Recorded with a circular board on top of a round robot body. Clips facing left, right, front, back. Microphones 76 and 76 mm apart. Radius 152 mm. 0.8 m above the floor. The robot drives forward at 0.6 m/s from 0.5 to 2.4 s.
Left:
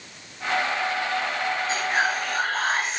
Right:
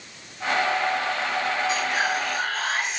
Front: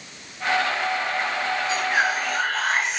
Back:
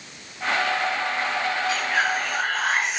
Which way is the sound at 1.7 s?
55° left.